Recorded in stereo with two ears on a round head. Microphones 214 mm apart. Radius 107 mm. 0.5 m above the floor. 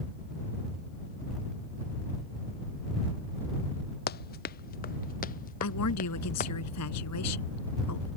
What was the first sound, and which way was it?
Running footsteps, 40° left (ahead or behind).